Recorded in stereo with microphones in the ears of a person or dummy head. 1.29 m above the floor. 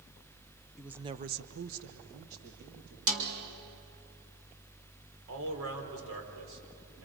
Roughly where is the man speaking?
Right.